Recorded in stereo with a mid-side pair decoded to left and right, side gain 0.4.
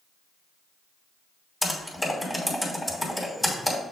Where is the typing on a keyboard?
10° left, 3 m.